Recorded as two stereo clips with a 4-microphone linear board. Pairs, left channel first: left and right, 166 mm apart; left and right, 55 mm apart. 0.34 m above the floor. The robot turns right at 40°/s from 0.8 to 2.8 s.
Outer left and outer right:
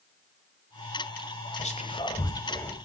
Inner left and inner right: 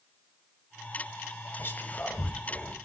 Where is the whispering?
45° left (ahead or behind), 1.4 m; by 2.8 s 10° left (ahead or behind), 1.4 m.